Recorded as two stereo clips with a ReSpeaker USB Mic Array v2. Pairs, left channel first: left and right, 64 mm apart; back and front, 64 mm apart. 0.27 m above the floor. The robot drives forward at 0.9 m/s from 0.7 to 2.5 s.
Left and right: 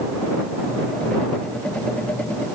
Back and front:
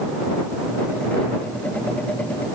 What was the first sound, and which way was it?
Only background noise.